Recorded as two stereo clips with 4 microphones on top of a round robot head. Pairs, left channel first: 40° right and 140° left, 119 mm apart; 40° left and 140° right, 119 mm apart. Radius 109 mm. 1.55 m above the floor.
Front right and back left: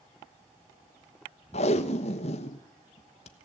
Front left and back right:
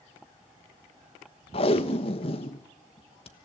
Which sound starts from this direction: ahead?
Tape being pulled, at 1.5 s.